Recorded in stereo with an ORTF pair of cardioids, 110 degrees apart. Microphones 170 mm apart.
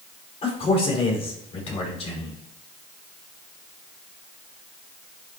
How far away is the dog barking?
No dog barking in this recording.